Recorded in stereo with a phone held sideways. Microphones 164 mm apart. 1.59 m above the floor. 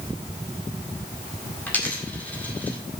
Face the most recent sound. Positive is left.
turn(degrees=10)  # may be behind; listen again after turning